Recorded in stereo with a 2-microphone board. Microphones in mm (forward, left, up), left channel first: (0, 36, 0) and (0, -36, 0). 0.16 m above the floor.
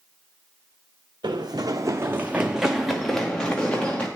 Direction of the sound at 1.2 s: 80° right.